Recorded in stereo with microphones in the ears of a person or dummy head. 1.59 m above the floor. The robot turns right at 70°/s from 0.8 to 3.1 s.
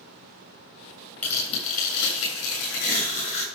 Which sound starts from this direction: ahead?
Tearing paper, at 1.2 s.